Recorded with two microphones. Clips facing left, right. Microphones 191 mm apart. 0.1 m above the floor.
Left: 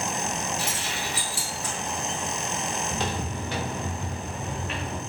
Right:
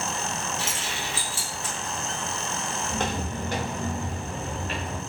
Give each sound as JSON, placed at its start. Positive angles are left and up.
{"t": 0.6, "sound": "keys jangling", "side_deg": -25, "distance_m": 1.4}
{"t": 2.9, "sound": "footsteps", "side_deg": -55, "distance_m": 1.0}